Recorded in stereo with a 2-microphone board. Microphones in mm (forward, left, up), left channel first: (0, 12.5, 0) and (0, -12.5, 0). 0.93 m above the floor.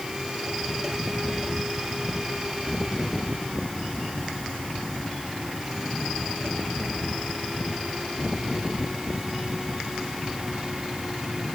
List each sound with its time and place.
Only background noise.